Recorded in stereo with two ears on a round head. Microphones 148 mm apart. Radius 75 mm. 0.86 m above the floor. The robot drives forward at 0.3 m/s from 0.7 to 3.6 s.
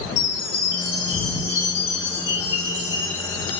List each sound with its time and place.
0.2 s a chime: 80° left, 5 m; by 3.6 s 90° left, 5 m